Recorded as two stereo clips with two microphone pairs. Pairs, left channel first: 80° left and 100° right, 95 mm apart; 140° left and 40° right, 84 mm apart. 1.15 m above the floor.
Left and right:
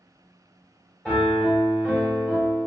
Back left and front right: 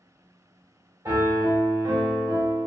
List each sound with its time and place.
1.1 s a piano: 5° left, 1.8 m